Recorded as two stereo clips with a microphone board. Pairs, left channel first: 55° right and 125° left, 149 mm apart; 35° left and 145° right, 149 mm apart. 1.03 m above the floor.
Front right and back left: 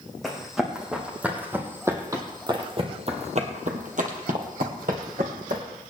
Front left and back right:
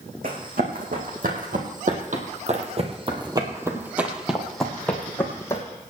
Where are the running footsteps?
145° right, 4 m; by 5.6 s 105° left, 3 m.